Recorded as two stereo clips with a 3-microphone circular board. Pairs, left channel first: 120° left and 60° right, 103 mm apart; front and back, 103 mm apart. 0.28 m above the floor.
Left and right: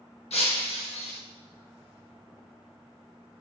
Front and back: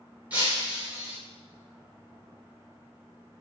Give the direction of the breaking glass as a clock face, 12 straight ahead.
9 o'clock.